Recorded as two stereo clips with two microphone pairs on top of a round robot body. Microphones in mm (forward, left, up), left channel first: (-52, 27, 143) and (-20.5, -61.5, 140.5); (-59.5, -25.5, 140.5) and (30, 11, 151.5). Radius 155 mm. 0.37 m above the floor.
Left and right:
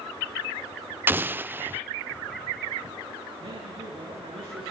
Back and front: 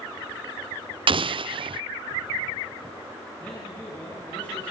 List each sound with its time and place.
1.1 s an explosion: 5° right, 0.7 m
3.4 s a man speaking: 85° right, 7.5 m